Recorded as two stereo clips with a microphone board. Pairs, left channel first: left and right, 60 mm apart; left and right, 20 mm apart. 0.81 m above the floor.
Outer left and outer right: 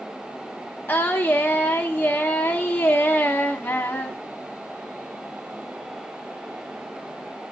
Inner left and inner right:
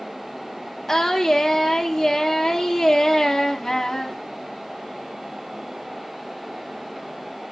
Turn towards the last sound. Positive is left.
turn(degrees=30)  # may be behind; listen again after turning